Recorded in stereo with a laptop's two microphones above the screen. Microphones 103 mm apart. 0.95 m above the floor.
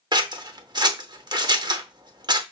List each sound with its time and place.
0.1 s scissors: 45° right (ahead or behind), 0.8 m